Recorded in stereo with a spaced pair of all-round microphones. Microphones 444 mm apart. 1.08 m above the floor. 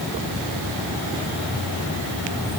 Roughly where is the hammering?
No hammering in this recording.